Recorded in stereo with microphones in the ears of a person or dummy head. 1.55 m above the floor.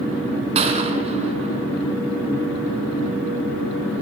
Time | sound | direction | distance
0.6 | a gunshot | 35° right (ahead or behind) | 4 m